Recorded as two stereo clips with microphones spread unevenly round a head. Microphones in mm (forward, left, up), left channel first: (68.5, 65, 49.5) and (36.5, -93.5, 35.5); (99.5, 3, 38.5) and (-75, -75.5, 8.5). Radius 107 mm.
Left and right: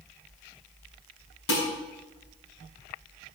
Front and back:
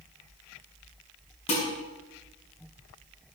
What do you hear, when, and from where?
1.5 s dishes clattering: 85° left, 7 m